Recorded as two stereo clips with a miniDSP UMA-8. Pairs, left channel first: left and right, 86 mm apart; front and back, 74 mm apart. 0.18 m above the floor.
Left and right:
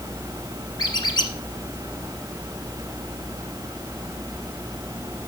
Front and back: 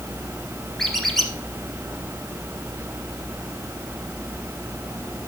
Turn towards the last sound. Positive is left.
turn(degrees=85)